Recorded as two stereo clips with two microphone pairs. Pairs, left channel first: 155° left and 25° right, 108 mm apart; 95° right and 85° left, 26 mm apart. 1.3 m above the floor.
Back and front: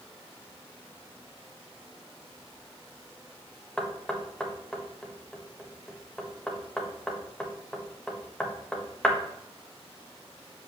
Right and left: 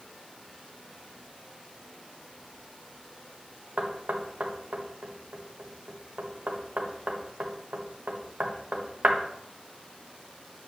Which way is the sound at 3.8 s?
70° left.